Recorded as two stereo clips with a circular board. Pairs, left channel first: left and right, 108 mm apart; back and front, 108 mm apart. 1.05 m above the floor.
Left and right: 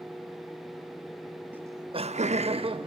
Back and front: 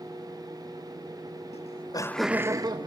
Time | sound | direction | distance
1.5 | laughter | 165° right | 0.8 m